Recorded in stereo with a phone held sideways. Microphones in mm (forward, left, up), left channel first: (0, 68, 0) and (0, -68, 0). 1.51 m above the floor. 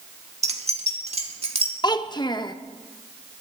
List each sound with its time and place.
0.4 s keys jangling: 50° right (ahead or behind), 1.5 m; by 1.7 s 45° right (ahead or behind), 2.5 m
1.8 s a child speaking: 30° left (ahead or behind), 0.8 m